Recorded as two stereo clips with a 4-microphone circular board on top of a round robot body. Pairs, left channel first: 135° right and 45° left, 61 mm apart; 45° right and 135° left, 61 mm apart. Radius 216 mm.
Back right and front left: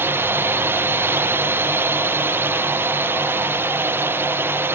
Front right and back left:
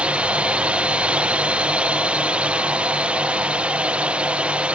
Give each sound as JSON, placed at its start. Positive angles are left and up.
{"t": 0.0, "sound": "a drone", "azimuth_deg": 75}